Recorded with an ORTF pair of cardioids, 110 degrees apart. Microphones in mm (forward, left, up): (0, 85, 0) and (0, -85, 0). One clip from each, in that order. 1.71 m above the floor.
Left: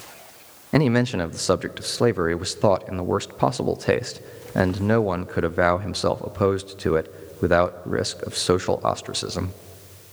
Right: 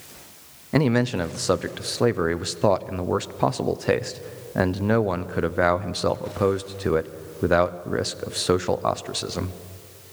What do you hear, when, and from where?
0.7 s a man speaking: 20° left, 0.6 m